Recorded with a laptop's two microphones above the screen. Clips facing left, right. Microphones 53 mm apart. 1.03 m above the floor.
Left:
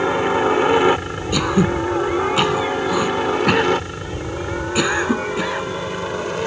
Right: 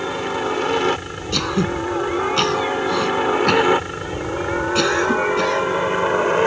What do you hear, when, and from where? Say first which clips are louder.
0.0 s a helicopter: left 5 dB; 20° left (ahead or behind); by 6.5 s 30° right (ahead or behind)
1.3 s throat clearing: left 3 dB; 10° left (ahead or behind)